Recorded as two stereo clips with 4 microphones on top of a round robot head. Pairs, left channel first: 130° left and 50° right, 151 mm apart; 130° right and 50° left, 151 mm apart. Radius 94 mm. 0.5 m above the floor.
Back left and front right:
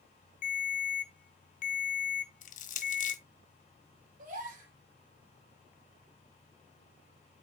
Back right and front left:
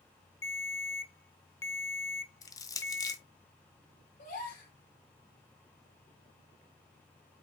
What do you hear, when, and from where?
0.4 s a ringtone: 160° left, 1.0 m
2.4 s crushing: 165° left, 1.2 m
4.2 s a gasp: 90° right, 5 m